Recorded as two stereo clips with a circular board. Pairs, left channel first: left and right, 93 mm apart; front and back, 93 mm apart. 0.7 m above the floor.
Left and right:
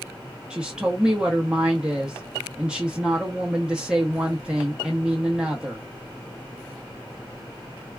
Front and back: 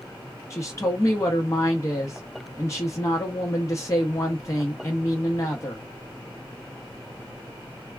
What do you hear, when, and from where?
0.5 s a woman speaking: 20° right, 0.7 m